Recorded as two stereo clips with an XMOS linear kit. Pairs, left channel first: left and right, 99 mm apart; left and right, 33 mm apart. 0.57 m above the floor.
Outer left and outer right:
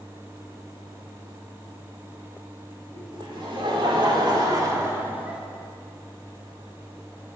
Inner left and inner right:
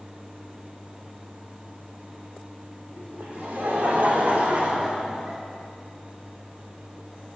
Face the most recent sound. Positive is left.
turn(degrees=-10)  # may be behind; listen again after turning